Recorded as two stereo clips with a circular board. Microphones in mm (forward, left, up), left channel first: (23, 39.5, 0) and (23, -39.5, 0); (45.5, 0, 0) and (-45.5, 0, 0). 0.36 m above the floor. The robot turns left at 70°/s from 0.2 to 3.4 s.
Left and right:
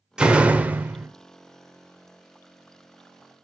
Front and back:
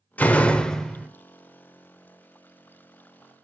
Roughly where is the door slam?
Ahead right.